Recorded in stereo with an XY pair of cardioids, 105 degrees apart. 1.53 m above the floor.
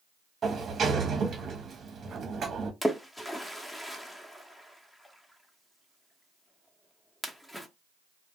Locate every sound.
0.4 s a sliding door: 50° right, 0.7 m
2.8 s a splash: 5° left, 0.6 m